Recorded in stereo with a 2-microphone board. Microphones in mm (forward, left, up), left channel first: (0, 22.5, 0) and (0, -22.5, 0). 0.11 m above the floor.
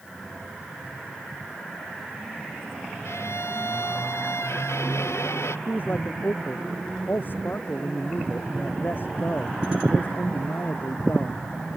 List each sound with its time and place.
3.0 s a violin: 85° left
5.7 s a man speaking: 50° left (ahead or behind)